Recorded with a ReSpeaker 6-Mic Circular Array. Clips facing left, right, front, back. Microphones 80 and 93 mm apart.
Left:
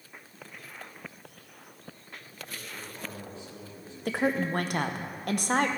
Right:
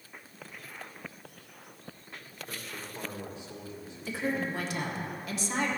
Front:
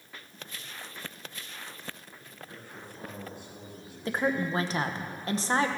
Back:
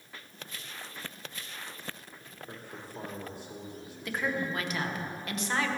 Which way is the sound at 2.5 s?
160° right.